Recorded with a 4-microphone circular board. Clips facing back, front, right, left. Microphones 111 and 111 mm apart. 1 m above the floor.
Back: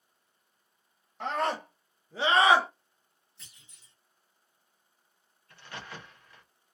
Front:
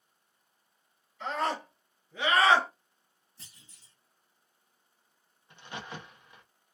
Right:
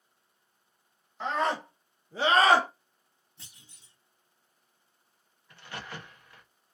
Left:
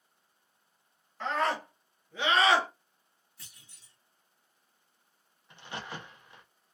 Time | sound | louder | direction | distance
1.2 | a scream | back 1 dB, right 1 dB | 165° right | 1.4 m
3.4 | a clunk | front 2 dB, right 2 dB | 35° right | 1.1 m
5.5 | a crack | front 2 dB, left 1 dB | 45° left | 0.7 m